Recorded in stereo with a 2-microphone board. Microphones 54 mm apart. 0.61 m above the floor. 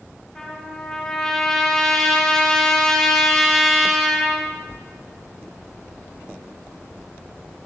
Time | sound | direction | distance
0.3 | a trumpet | 5° left (ahead or behind) | 3 m